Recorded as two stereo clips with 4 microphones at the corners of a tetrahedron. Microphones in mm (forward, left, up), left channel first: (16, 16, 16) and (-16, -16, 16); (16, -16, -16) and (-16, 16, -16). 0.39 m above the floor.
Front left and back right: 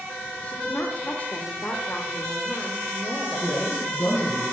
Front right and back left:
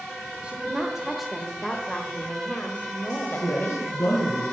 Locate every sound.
0.4 s a woman speaking: 85° left, 1.1 m; by 4.3 s 15° right, 1.9 m
3.4 s a woman speaking: 25° right, 5.5 m